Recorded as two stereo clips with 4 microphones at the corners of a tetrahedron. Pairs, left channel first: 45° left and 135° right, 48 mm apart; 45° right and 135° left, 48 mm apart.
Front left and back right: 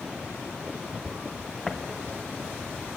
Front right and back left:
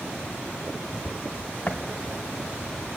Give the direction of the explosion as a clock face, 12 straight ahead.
1 o'clock.